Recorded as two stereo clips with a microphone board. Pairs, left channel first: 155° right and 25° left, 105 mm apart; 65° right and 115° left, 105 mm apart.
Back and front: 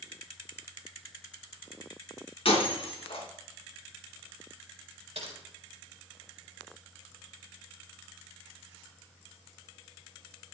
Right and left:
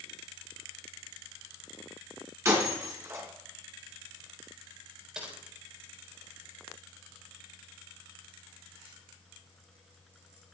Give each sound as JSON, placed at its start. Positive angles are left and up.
{"t": 2.5, "sound": "breaking glass", "azimuth_deg": 175, "distance_m": 3.0}
{"t": 5.2, "sound": "typing on a keyboard", "azimuth_deg": 30, "distance_m": 3.5}